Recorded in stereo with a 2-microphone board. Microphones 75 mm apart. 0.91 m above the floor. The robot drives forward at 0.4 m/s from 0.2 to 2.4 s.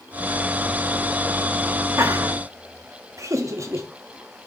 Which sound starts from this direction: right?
Laughter, at 2.0 s.